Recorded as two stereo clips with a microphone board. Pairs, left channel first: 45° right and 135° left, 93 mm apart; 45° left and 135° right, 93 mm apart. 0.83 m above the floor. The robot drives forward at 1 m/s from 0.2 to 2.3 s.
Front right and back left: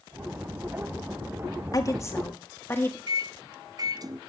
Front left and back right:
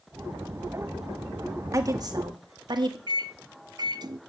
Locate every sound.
1.7 s a woman speaking: 85° right, 1.7 m; by 3.0 s 110° right, 1.8 m
3.1 s a microwave: straight behind, 0.6 m